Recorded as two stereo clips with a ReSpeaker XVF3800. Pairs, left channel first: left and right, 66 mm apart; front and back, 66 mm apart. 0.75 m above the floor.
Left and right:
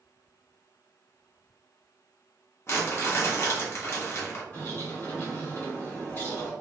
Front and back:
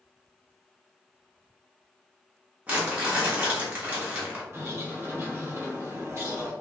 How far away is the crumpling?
About 1.2 m.